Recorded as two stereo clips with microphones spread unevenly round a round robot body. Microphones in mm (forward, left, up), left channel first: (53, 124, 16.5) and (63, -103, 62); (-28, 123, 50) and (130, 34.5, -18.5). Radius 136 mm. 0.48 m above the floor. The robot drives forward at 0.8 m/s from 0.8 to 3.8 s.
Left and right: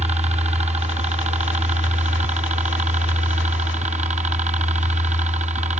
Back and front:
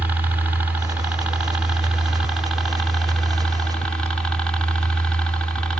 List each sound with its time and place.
0.0 s a helicopter: 35° right; by 5.8 s 65° right